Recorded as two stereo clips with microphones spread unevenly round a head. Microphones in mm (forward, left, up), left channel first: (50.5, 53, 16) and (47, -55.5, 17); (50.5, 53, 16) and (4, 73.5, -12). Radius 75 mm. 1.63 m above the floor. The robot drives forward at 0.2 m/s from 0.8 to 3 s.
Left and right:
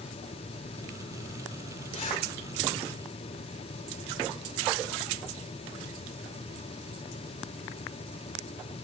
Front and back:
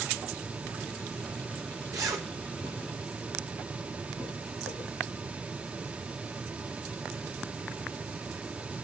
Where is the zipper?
145° left, 4 m.